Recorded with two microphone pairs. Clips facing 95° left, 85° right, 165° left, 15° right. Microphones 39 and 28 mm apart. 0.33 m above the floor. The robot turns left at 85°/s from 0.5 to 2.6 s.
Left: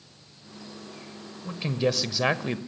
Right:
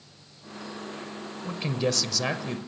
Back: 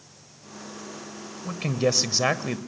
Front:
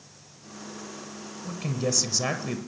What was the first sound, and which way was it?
A man speaking, 160° right.